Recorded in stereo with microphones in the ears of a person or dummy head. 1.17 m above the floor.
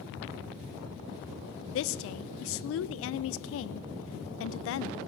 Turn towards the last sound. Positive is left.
turn(degrees=70)  # may be behind; listen again after turning